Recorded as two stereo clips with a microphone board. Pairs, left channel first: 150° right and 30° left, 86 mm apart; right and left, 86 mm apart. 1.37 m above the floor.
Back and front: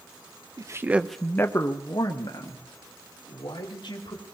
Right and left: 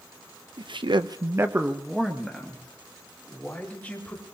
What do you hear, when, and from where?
0.6 s a man speaking: 75° left, 0.9 m; by 4.2 s 165° right, 4 m